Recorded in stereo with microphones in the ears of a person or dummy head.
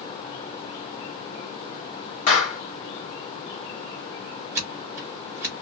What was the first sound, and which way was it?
A clap, 45° left (ahead or behind).